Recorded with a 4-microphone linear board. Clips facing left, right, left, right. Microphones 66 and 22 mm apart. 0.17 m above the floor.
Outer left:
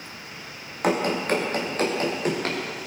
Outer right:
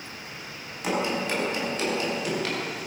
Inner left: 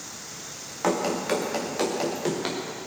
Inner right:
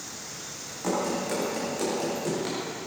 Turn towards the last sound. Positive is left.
turn(degrees=40)  # may be behind; listen again after turning